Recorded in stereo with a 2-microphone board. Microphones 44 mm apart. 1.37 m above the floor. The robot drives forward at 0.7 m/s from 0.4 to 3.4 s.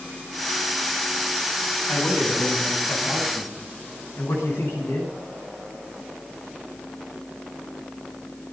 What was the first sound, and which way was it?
A man speaking, 70° left (ahead or behind).